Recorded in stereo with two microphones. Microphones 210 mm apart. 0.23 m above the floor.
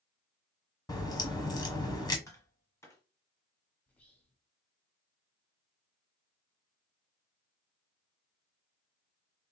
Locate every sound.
0.9 s a crack: 15° left (ahead or behind), 1.0 m
2.3 s tapping: 15° left (ahead or behind), 1.1 m
3.9 s whispering: 10° left (ahead or behind), 1.0 m